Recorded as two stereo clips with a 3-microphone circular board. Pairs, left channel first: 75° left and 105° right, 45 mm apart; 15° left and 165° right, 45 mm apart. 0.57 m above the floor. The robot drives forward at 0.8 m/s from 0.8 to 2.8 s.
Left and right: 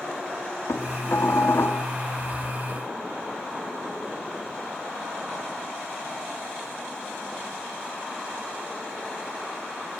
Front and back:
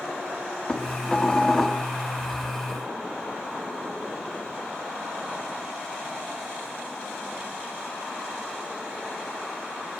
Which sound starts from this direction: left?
Dishes clattering, at 0.7 s.